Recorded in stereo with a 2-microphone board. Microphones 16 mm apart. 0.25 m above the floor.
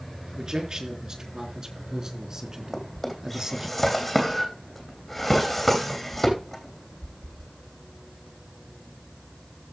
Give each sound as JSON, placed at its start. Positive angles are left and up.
{"t": 0.4, "sound": "a man speaking", "side_deg": -55, "distance_m": 4.0}
{"t": 2.7, "sound": "a drawer", "side_deg": 10, "distance_m": 3.0}